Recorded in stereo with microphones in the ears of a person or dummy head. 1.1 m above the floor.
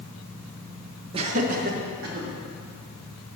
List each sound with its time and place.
1.1 s laughter: 30° right (ahead or behind), 0.6 m; by 2.3 s 45° right (ahead or behind), 2 m